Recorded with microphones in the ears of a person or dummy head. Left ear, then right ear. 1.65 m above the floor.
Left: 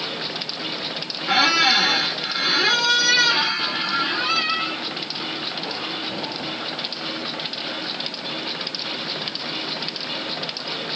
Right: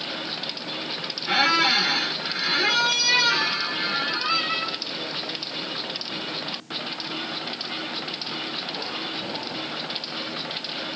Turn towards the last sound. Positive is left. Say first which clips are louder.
# left 3 dB
turn(degrees=10)  # may be behind; listen again after turning